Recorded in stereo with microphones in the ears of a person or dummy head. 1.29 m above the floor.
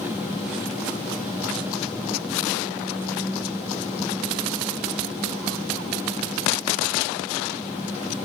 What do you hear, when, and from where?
0.0 s an engine running: 10° right (ahead or behind)